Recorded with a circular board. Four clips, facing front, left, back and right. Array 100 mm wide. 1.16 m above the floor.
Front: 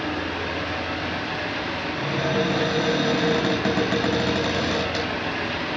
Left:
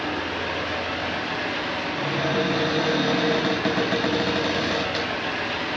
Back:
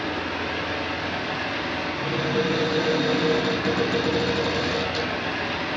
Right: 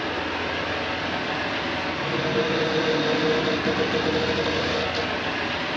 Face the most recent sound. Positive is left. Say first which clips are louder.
# left 1 dB, front 1 dB
turn(degrees=55)